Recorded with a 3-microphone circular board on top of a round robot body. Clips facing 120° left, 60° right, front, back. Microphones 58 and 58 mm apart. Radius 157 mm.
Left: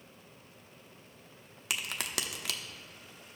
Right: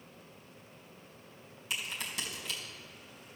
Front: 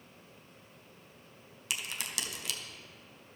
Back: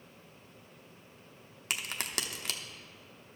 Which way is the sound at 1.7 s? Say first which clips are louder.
Left 2 dB, back 2 dB; 135° left.